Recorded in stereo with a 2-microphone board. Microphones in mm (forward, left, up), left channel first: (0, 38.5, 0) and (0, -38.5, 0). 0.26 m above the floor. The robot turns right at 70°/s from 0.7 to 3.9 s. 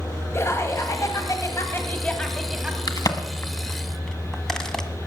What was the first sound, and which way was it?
Laughter, 60° left.